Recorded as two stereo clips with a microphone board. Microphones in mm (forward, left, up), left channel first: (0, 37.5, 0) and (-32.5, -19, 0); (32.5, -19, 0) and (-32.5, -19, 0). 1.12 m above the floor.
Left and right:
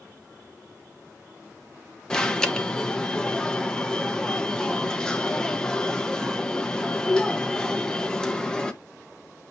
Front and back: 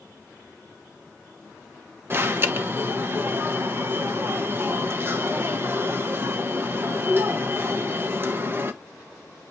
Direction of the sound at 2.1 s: 135° left.